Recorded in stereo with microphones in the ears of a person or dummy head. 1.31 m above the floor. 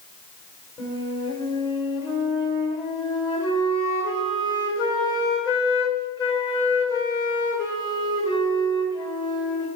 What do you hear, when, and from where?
0.8 s a flute: 20° left (ahead or behind), 1.9 m